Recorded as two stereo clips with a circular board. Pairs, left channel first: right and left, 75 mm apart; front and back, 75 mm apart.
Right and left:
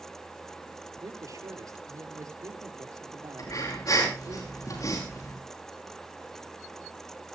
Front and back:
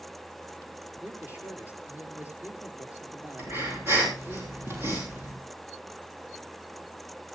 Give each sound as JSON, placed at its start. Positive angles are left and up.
{"t": 1.0, "sound": "a man speaking", "azimuth_deg": 115, "distance_m": 4.0}
{"t": 3.4, "sound": "breathing", "azimuth_deg": -125, "distance_m": 6.5}